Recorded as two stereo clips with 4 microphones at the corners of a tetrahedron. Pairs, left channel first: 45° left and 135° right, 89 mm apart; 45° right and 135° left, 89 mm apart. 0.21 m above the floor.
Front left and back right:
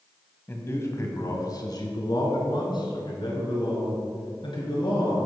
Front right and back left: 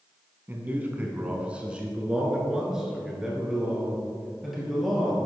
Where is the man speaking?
85° left, 1.2 m; by 5.3 s 45° left, 3.5 m.